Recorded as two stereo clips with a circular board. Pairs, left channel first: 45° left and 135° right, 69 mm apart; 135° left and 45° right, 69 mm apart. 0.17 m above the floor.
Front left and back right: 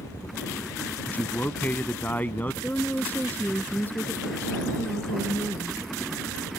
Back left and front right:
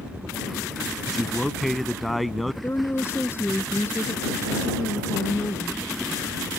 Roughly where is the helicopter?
Ahead left.